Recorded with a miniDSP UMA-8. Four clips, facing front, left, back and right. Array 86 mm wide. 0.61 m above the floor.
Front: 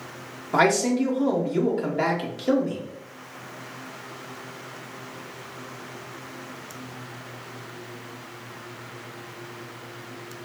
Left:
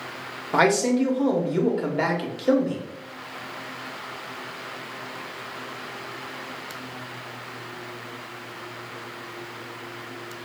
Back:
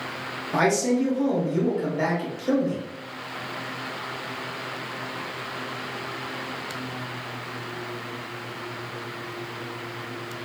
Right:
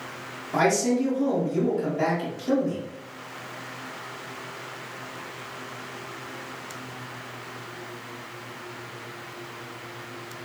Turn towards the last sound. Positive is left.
turn(degrees=60)